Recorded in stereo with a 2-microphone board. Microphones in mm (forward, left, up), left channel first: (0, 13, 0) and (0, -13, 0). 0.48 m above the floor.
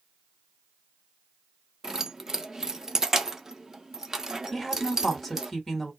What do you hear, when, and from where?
1.8 s keys jangling: 20° right (ahead or behind), 0.5 m
4.5 s a woman speaking: 5° left (ahead or behind), 1.5 m